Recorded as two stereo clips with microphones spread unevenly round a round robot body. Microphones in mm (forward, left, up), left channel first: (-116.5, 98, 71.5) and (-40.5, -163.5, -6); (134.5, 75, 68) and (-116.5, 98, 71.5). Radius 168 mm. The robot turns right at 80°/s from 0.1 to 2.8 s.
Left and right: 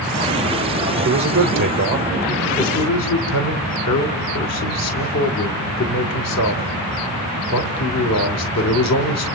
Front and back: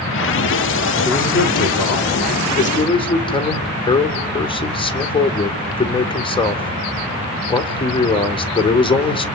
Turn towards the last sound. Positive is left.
turn(degrees=65)